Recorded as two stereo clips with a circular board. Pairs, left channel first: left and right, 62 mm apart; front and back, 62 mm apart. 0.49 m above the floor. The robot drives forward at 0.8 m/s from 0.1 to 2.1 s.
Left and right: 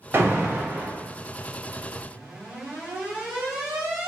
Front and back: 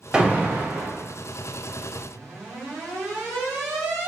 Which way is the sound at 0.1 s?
115° right.